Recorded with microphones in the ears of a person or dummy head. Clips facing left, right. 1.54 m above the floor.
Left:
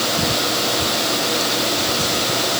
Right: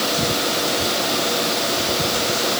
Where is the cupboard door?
No cupboard door in this recording.